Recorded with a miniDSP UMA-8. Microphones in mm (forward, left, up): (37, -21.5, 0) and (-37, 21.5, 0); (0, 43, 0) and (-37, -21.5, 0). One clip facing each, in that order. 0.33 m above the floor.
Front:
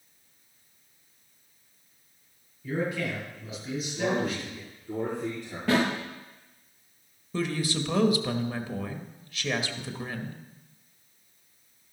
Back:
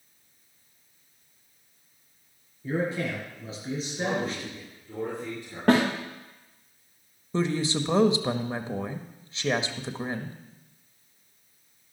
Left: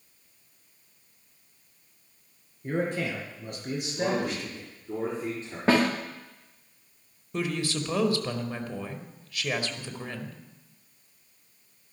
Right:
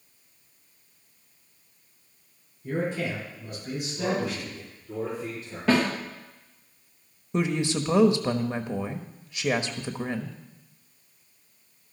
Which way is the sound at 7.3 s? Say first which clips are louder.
Back 3 dB, right 4 dB; 170° right.